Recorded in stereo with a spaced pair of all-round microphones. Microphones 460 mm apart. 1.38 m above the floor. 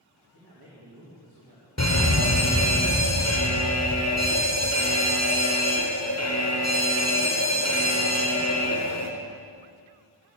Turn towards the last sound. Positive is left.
turn(degrees=35)  # may be behind; listen again after turning